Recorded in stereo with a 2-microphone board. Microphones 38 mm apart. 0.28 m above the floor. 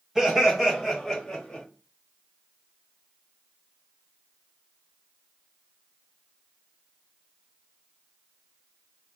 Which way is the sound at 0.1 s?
15° right (ahead or behind).